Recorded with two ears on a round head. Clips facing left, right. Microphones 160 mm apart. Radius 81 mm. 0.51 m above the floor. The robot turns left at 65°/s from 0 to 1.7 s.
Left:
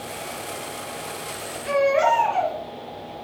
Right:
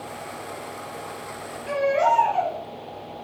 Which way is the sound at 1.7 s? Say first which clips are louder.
Left 2 dB; 65° left (ahead or behind).